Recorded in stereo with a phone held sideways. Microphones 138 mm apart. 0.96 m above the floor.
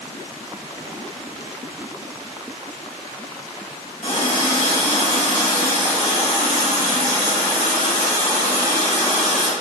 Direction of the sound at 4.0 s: 50° left (ahead or behind).